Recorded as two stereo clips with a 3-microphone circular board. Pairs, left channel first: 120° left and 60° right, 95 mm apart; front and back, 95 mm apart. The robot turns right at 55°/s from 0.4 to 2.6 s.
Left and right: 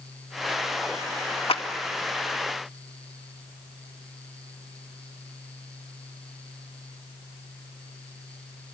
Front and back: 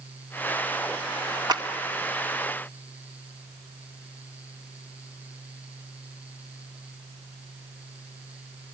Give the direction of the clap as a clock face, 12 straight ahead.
7 o'clock.